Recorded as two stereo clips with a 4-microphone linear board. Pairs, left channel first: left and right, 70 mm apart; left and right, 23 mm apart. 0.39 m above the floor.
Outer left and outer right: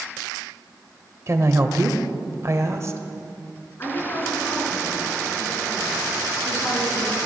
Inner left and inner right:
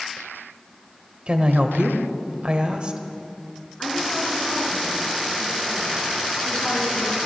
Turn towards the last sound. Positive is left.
turn(degrees=30)  # may be behind; listen again after turning